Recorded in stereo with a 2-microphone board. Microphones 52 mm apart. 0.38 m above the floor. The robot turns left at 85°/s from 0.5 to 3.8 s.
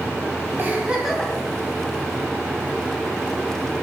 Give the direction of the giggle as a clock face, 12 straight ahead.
4 o'clock.